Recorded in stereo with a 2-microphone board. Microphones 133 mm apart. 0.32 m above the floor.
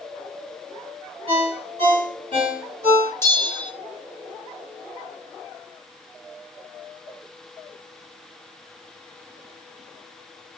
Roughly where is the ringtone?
Right.